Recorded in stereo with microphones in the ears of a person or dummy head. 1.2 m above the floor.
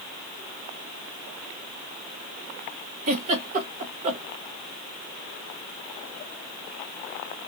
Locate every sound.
3.1 s a giggle: 45° right (ahead or behind), 1.4 m